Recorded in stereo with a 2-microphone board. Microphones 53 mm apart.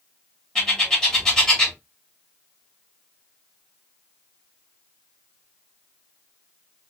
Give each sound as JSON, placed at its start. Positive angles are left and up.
{"t": 0.6, "sound": "a bird", "side_deg": 15, "distance_m": 1.8}